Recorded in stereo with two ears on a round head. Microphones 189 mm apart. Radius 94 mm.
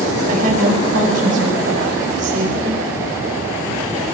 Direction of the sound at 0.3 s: 40° right (ahead or behind).